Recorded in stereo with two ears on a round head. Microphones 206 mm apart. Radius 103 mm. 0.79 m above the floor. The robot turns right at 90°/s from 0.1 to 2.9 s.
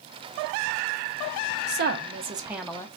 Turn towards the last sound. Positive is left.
turn(degrees=25)